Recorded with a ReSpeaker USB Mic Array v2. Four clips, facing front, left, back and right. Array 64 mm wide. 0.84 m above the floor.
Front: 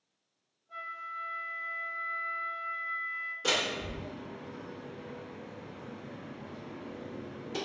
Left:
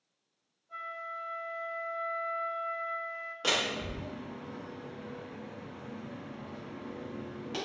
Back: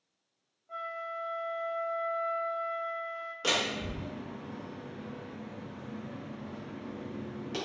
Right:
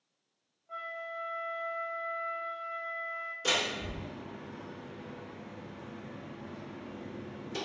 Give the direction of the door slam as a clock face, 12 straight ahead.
8 o'clock.